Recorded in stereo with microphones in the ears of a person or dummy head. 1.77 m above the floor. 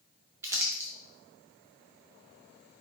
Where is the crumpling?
15° right (ahead or behind), 0.7 m.